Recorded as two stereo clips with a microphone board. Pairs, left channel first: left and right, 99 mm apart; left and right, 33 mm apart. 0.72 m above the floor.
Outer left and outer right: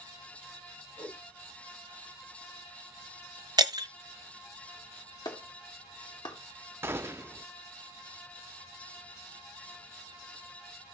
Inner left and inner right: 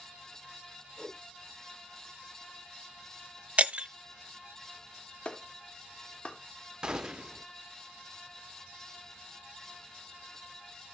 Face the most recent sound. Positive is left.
turn(degrees=-25)  # may be behind; listen again after turning